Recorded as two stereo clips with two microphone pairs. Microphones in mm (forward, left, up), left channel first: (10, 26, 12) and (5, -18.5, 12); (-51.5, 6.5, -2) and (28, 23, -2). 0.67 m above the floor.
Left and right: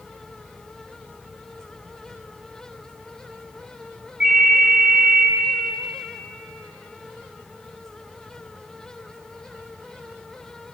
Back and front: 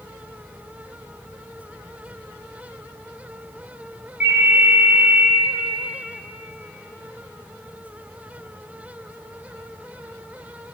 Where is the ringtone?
55° right, 2.5 m.